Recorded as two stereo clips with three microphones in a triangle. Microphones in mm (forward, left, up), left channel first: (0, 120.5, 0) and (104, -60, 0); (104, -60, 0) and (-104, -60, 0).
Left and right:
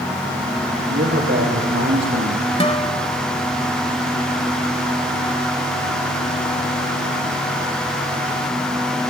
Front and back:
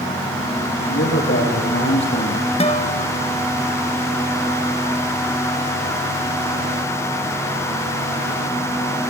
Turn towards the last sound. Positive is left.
turn(degrees=55)